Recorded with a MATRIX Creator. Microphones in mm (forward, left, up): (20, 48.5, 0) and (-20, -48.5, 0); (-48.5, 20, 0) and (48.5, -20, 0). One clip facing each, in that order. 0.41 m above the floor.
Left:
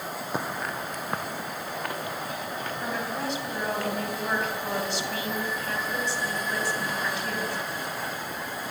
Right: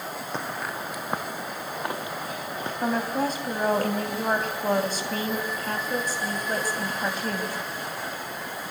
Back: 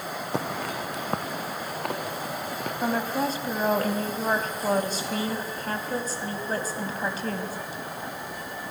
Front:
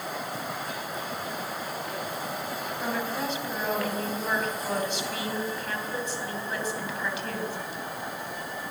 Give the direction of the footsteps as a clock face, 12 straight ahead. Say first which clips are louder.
Left 1 dB, back 4 dB; 7 o'clock.